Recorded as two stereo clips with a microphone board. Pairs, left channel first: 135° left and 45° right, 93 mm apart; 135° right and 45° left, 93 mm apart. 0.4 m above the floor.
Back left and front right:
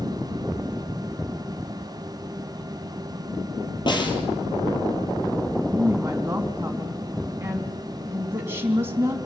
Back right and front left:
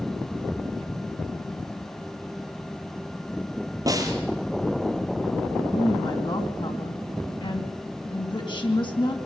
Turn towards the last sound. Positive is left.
turn(degrees=-110)